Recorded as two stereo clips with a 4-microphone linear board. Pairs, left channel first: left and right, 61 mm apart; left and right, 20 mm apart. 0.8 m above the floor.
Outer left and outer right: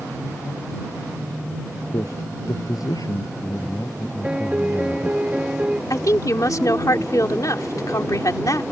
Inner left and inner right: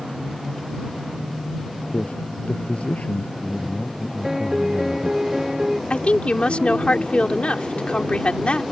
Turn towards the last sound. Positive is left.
turn(degrees=70)  # may be behind; listen again after turning